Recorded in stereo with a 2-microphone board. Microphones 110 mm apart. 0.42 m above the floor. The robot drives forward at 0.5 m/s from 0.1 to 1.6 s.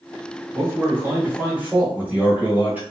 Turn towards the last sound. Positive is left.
turn(degrees=-15)  # may be behind; listen again after turning